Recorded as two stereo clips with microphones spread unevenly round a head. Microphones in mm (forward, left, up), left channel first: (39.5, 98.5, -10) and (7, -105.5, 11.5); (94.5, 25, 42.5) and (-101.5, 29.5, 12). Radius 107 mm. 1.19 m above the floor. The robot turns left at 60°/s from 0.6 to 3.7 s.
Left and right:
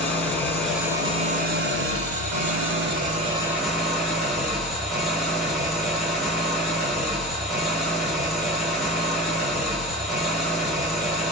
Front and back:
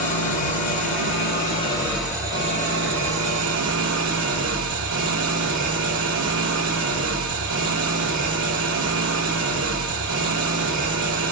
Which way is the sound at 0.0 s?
5° right.